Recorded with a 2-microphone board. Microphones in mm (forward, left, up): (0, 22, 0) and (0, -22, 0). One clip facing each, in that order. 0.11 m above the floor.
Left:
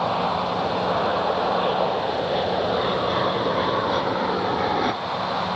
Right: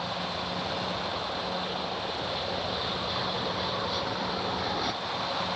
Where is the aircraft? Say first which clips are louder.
Left 10 dB; 55° left (ahead or behind); by 5.6 s 30° left (ahead or behind).